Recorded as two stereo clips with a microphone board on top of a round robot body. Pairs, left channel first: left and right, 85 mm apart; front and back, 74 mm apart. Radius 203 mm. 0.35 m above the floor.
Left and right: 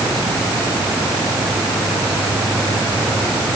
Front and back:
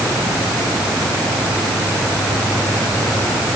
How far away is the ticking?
No ticking in this recording.